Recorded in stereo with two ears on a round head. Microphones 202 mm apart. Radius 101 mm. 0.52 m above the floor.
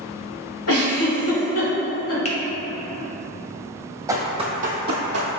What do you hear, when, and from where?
0.7 s a giggle: 65° left (ahead or behind), 1.8 m
2.2 s a finger snap: 30° left (ahead or behind), 0.6 m
4.1 s running footsteps: 15° right (ahead or behind), 0.8 m; by 5.3 s 55° right (ahead or behind), 0.8 m